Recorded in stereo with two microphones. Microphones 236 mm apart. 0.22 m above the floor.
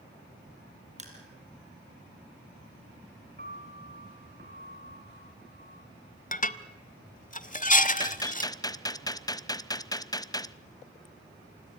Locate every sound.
1.0 s crushing: 30° right (ahead or behind), 5 m
3.4 s a piano: 40° right (ahead or behind), 2.5 m
6.3 s dishes clattering: 35° left (ahead or behind), 0.9 m
8.0 s a gunshot: 15° left (ahead or behind), 0.6 m